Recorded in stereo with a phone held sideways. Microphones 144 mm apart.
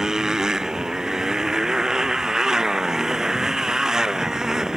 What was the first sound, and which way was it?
A motorcycle, 5° right (ahead or behind).